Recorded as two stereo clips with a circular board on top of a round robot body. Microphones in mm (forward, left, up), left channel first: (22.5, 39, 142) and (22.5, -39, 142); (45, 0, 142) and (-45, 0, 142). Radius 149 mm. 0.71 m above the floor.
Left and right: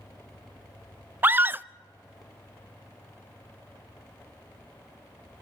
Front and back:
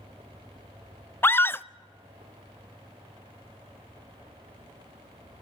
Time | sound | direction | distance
1.2 | a scream | 45° right | 0.6 m